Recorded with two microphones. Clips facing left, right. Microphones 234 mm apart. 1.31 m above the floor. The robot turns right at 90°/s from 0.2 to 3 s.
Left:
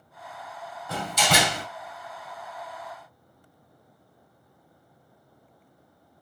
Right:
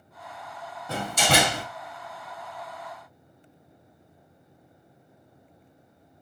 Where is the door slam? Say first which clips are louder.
Right 2 dB; 150° right, 1.8 m; by 1.6 s 80° right, 1.8 m.